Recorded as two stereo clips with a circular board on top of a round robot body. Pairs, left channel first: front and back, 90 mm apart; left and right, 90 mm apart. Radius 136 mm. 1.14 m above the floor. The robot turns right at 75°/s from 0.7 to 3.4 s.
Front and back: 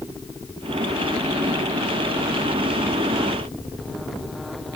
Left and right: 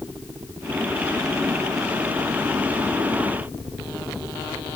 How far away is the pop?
No pop in this recording.